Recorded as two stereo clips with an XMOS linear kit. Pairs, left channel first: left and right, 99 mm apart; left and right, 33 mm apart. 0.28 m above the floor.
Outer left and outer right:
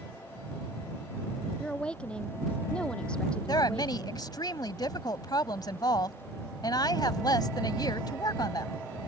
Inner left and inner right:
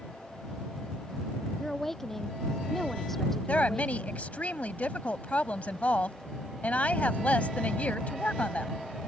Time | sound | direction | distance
1.6 | a woman speaking | 10° left (ahead or behind) | ?
3.5 | a woman speaking | 45° left (ahead or behind) | ?